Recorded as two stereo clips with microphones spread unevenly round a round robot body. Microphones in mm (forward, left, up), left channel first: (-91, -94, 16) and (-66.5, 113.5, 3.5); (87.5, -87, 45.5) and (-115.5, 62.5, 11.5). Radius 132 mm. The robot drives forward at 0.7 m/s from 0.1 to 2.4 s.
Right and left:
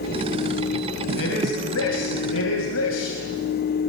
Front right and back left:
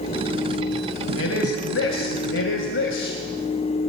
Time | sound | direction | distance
1.1 | a man speaking | 70° right | 4.5 m